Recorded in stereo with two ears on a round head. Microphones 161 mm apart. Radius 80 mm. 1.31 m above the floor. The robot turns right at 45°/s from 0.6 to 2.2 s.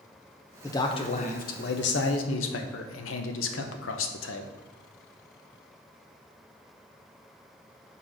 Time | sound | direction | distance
0.6 | a man speaking | 15° left | 0.7 m